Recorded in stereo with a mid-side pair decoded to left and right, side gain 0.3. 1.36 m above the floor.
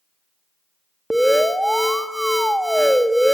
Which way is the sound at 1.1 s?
5° right.